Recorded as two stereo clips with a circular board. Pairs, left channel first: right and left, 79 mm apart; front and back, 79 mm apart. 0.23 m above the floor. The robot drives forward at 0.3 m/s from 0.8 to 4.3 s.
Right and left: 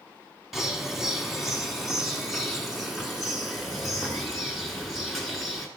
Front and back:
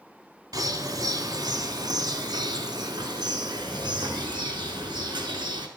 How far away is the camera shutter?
No camera shutter in this recording.